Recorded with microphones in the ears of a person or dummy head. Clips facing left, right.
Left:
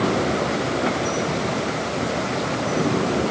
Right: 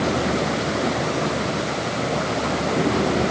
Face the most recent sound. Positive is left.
No sound to turn to.